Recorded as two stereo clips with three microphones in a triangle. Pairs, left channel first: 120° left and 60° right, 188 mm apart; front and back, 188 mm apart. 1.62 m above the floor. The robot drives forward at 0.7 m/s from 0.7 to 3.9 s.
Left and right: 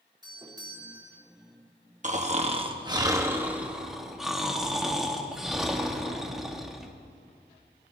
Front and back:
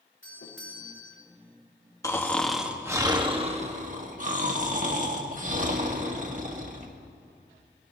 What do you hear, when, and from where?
0.2 s a doorbell: 10° left, 2.5 m
2.0 s snoring: 65° right, 1.1 m; by 6.9 s 145° right, 1.5 m